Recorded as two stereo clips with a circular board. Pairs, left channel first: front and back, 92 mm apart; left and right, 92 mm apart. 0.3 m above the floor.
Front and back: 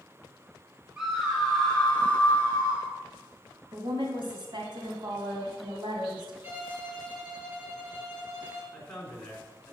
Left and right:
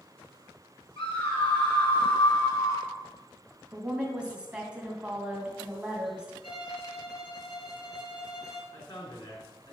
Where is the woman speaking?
165° right, 2.5 m.